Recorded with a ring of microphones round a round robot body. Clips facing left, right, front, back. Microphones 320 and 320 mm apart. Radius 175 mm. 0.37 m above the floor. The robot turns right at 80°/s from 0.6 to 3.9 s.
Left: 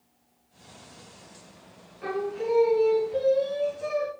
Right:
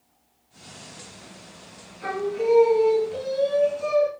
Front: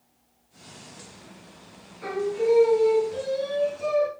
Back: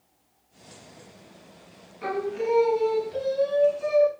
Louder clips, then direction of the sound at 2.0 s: Right 4 dB, front 3 dB; 165° right.